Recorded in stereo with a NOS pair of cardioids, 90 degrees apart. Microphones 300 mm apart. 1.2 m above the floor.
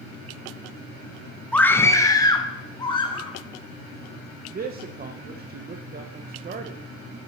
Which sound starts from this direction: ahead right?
A man speaking, at 4.5 s.